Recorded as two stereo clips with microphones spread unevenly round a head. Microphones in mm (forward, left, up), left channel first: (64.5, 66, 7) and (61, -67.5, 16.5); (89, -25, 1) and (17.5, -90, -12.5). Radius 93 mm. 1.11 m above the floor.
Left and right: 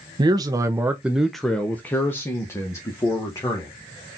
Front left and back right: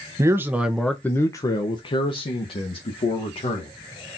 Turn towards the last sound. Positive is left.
turn(degrees=25)